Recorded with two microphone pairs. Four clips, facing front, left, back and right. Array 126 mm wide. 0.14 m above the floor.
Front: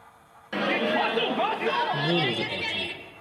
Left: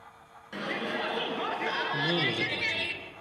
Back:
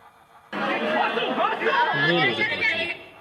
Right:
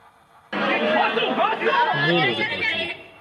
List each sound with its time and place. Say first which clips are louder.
0.5 s a shout: right 13 dB, back 1 dB; 90° right, 1.3 m; by 2.9 s 160° right, 1.9 m
1.9 s a man speaking: right 9 dB, back 4 dB; 145° right, 1.4 m